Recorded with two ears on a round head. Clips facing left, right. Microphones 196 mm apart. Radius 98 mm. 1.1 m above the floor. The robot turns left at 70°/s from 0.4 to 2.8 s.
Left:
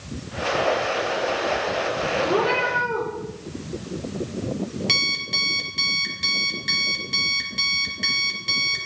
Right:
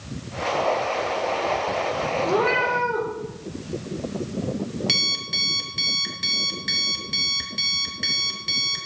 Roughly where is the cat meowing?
Right.